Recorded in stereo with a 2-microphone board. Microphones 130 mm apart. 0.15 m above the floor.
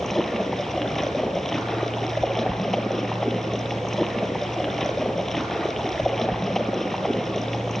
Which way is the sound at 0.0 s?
5° left (ahead or behind).